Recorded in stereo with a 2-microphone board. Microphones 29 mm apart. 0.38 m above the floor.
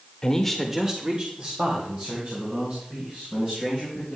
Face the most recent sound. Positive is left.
turn(degrees=-60)  # may be behind; listen again after turning